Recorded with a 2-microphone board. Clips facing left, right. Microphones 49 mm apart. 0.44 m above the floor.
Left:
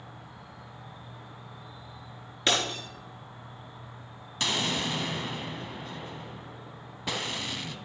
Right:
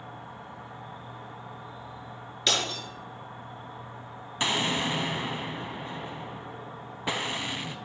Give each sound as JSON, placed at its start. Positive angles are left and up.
{"t": 0.0, "sound": "an insect", "side_deg": -40, "distance_m": 1.8}
{"t": 2.5, "sound": "breaking glass", "side_deg": 30, "distance_m": 3.5}
{"t": 4.4, "sound": "an explosion", "side_deg": -20, "distance_m": 0.9}